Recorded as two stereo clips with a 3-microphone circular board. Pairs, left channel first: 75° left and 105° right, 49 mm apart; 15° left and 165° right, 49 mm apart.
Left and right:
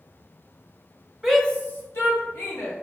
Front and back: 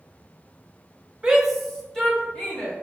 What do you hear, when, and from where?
1.2 s a shout: 175° left, 0.7 m; by 2.7 s 85° left, 2.5 m